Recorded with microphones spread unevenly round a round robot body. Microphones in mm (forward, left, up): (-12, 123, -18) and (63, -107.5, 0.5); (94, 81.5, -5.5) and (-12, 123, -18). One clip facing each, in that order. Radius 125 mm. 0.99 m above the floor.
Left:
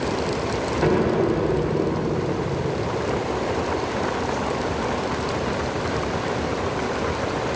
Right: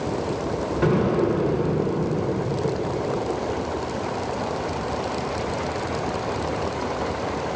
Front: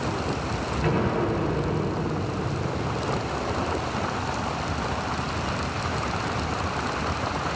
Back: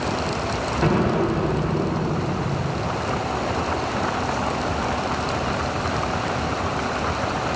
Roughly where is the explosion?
Behind right.